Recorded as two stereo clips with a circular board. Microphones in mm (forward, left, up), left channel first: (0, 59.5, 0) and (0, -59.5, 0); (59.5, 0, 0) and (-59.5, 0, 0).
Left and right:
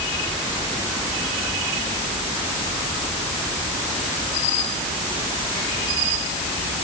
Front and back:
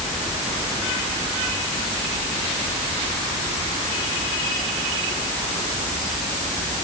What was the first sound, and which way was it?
Only background noise.